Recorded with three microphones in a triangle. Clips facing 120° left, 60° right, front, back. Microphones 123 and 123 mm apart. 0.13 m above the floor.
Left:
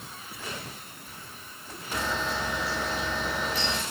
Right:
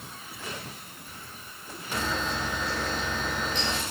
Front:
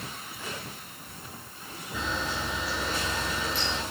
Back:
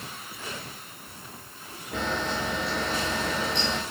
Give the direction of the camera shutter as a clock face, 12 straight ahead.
5 o'clock.